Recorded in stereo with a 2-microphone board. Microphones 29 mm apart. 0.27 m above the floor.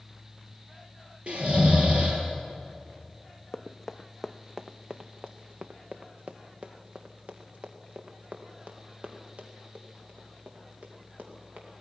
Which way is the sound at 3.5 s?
15° left (ahead or behind).